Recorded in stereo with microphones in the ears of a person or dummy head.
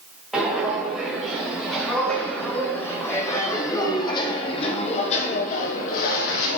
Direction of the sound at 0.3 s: Centre (ahead or behind).